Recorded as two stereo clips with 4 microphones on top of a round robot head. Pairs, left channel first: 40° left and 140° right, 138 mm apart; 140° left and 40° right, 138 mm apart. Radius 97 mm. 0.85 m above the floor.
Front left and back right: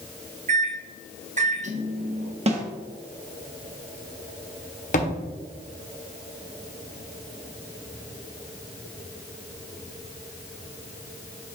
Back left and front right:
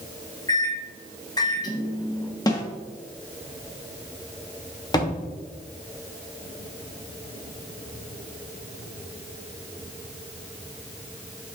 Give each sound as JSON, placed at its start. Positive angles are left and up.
{"t": 0.5, "sound": "a microwave", "azimuth_deg": -160, "distance_m": 0.9}
{"t": 2.5, "sound": "a snare drum", "azimuth_deg": -165, "distance_m": 1.3}
{"t": 4.9, "sound": "a thud", "azimuth_deg": 75, "distance_m": 1.2}